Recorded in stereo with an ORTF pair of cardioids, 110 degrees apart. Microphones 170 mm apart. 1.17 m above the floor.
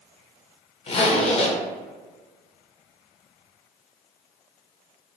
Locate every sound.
0.9 s a zipper: 35° left, 0.6 m